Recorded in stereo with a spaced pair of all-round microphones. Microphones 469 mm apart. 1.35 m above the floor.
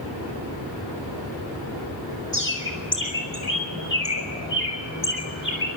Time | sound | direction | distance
2.3 | a bird | 25° left (ahead or behind) | 4.5 m